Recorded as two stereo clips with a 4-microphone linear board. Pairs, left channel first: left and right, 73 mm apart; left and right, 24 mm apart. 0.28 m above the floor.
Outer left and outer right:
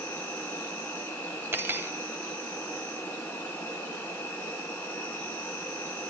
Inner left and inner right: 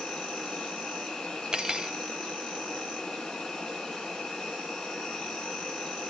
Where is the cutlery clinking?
35° right (ahead or behind), 0.6 m.